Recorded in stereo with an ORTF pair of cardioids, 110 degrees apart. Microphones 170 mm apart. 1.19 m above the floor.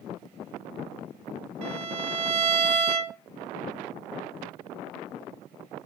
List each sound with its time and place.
1.6 s a violin: 45° right, 1.7 m